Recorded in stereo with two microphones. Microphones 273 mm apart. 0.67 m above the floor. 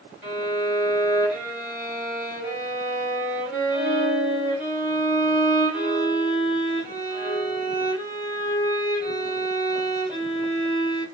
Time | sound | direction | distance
0.2 | a violin | 5° right (ahead or behind) | 3.5 m